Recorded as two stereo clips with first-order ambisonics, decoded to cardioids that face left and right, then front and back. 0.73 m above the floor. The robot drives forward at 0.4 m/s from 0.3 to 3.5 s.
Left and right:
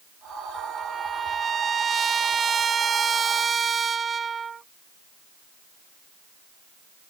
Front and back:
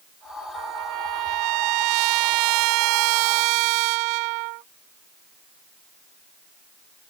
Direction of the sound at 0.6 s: 155° right.